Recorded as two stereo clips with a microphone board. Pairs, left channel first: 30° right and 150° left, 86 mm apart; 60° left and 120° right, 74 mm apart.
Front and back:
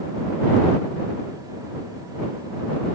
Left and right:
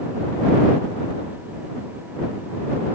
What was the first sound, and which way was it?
Only background noise.